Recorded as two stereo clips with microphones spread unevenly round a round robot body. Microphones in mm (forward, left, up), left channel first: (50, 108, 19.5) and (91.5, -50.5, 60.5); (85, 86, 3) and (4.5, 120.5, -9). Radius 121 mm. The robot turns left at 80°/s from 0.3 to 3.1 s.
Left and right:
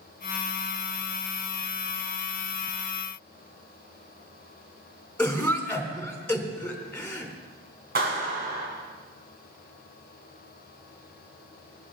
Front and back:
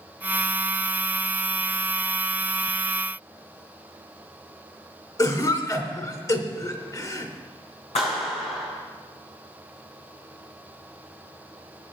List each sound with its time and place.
5.2 s a cough: 25° left, 3.5 m
8.0 s a clap: 50° right, 7 m